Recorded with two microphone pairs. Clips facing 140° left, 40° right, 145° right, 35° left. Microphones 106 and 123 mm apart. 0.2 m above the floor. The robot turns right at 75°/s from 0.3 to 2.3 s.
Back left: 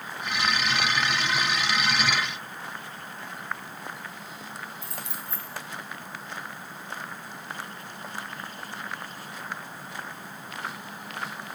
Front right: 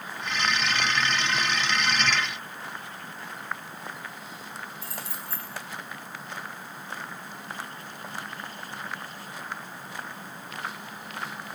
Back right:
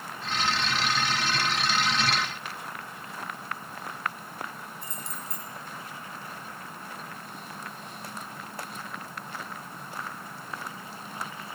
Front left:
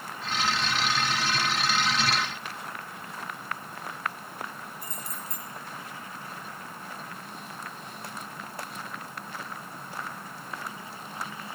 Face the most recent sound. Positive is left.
turn(degrees=-170)